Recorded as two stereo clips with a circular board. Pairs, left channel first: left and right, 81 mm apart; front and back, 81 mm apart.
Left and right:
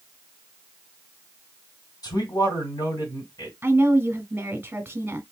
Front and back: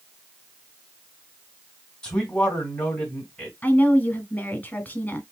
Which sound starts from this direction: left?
A man speaking, at 2.0 s.